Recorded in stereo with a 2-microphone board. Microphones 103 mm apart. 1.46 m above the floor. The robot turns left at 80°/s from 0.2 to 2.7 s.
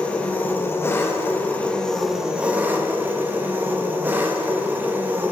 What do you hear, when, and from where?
0.0 s an engine running: 10° left (ahead or behind), 0.8 m; by 5.3 s 15° right (ahead or behind), 0.8 m